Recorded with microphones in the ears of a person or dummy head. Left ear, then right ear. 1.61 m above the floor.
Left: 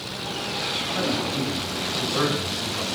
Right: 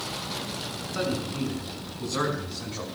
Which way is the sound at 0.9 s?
5° left (ahead or behind).